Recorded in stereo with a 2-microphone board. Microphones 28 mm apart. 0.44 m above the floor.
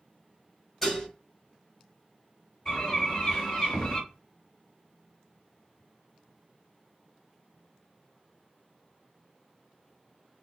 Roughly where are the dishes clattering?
Centre.